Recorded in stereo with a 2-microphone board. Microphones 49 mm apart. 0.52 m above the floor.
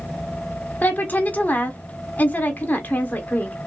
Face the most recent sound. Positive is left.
turn(degrees=35)  # may be behind; listen again after turning